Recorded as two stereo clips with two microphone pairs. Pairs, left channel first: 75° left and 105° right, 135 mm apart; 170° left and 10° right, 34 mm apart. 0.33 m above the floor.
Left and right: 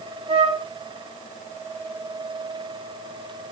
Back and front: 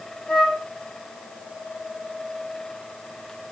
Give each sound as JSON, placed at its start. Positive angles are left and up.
{"t": 0.3, "sound": "a flute", "azimuth_deg": -135, "distance_m": 1.3}